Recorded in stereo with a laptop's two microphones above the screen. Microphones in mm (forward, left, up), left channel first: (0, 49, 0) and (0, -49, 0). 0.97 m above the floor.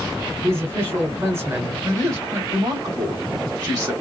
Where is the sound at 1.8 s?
40° right (ahead or behind), 3 m.